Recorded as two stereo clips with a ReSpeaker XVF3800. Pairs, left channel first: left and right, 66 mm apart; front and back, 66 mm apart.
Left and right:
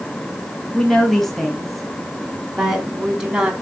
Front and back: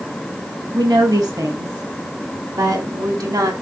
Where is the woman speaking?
175° left, 4 m; by 3.5 s 165° right, 3 m.